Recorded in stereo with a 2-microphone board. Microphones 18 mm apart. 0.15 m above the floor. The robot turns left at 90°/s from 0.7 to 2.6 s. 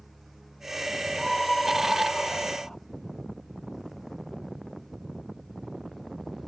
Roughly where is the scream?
Behind.